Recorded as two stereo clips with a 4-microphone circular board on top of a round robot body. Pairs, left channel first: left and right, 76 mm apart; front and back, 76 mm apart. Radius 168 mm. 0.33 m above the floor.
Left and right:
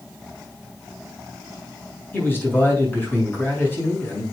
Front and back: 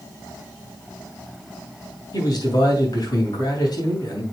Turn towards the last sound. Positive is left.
turn(degrees=30)